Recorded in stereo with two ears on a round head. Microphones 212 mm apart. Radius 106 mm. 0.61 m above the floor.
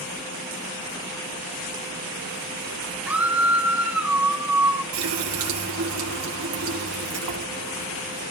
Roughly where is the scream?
Centre.